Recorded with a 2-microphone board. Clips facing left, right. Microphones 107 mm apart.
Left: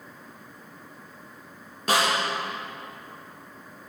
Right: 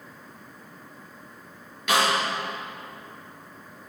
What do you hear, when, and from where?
1.9 s a snare drum: 35° left (ahead or behind), 5 m